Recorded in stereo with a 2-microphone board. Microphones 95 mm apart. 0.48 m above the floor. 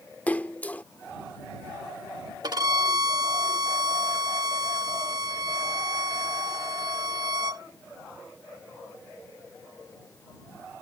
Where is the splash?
15° left (ahead or behind).